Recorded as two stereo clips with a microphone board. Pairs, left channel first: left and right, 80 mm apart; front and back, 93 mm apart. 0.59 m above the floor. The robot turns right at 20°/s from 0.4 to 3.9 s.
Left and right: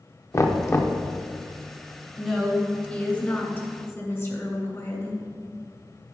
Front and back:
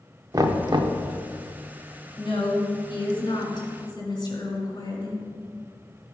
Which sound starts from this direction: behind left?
Knocking, at 0.3 s.